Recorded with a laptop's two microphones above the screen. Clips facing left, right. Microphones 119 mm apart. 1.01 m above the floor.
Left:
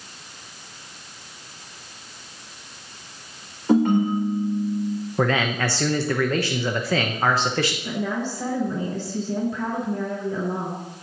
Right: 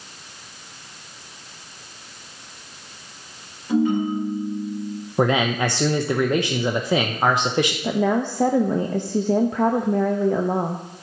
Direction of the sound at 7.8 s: 55° right (ahead or behind).